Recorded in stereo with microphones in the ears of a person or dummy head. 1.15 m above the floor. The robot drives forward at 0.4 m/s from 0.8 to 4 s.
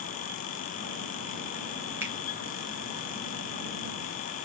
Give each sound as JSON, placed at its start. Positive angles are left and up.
{"t": 2.0, "sound": "a finger snap", "side_deg": -10, "distance_m": 0.8}